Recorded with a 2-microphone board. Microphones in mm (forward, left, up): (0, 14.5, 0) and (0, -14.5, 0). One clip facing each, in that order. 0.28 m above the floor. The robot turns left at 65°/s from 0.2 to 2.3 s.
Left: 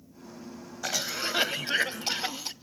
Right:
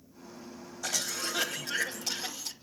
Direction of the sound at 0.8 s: 150° left.